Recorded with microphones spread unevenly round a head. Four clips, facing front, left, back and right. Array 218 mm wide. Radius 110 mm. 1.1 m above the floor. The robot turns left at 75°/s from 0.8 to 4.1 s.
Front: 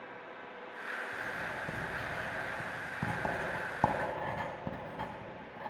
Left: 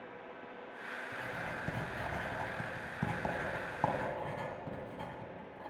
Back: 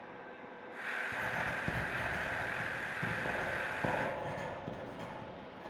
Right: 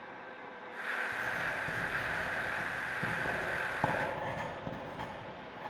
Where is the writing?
165° right, 2.0 m; by 5.7 s 30° right, 2.0 m.